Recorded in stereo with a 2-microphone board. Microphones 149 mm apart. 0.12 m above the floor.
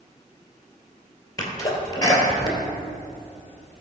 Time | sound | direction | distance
1.4 | a sneeze | 25° left (ahead or behind) | 2.5 m